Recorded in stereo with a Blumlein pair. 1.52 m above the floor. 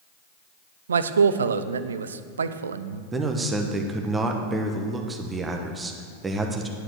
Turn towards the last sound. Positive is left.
turn(degrees=-15)